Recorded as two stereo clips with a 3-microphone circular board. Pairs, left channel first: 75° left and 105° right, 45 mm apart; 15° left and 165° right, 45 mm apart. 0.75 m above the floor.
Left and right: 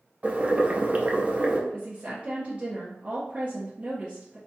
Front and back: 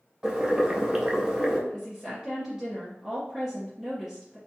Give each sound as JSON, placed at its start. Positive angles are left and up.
{"t": 0.2, "sound": "boiling", "azimuth_deg": -105, "distance_m": 0.6}
{"t": 1.7, "sound": "a woman speaking", "azimuth_deg": -95, "distance_m": 1.0}